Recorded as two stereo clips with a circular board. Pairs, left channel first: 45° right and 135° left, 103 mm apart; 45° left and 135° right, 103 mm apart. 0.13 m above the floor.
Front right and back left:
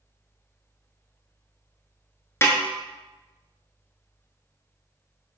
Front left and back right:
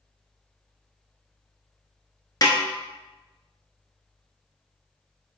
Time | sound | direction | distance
2.4 | a snare drum | 10° left | 0.9 m